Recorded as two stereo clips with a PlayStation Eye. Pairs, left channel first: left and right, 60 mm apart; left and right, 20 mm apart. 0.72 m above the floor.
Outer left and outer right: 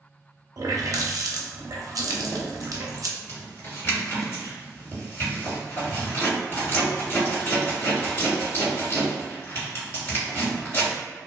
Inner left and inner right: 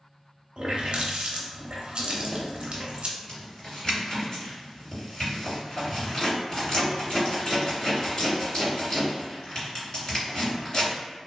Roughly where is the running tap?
Right.